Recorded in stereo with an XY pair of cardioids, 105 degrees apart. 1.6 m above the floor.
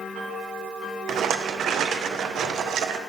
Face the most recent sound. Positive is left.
turn(degrees=-65)